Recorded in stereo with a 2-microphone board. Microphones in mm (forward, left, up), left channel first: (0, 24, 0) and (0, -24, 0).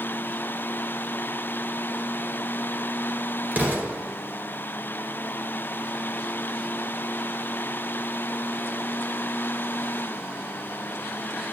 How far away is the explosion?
About 1.8 m.